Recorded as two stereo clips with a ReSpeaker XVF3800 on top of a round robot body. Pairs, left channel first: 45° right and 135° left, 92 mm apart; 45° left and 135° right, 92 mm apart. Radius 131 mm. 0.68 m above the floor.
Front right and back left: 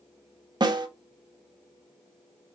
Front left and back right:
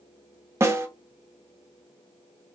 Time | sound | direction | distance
0.6 | a snare drum | 165° left | 0.8 m